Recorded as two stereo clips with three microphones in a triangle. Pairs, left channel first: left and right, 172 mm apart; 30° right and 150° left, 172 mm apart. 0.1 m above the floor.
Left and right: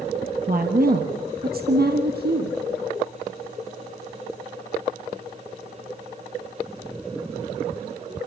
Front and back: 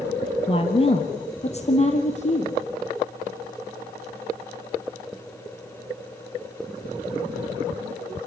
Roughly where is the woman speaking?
Right.